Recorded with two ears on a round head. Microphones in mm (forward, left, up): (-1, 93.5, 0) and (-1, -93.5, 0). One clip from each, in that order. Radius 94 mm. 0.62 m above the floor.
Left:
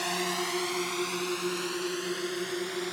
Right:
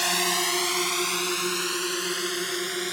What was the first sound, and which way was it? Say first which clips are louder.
A drone: right 6 dB; 40° right (ahead or behind).